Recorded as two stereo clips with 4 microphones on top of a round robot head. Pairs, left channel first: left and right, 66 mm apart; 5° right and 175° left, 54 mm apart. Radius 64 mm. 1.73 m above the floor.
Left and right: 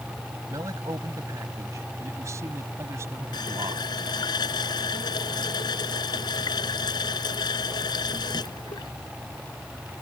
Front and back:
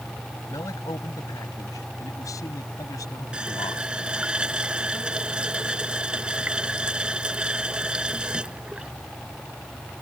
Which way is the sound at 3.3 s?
100° left.